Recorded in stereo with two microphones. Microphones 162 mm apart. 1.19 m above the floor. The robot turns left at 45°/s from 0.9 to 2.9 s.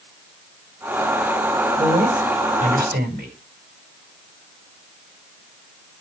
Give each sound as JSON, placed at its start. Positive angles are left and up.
{"t": 1.8, "sound": "a woman speaking", "azimuth_deg": -35, "distance_m": 5.0}